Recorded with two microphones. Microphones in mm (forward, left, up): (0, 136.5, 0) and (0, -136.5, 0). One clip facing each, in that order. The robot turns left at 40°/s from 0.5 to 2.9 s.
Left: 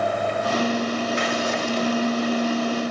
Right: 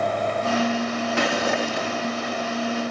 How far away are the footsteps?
About 4 m.